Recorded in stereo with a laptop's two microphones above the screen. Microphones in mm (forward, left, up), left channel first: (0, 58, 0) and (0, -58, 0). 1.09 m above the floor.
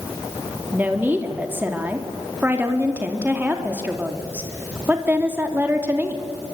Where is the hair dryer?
I don't hear a hair dryer.